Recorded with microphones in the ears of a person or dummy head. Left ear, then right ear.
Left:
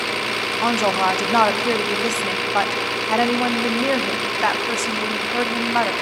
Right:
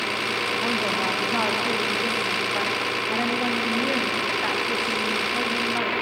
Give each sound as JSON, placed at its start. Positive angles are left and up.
{"t": 0.6, "sound": "a woman speaking", "side_deg": 40, "distance_m": 0.6}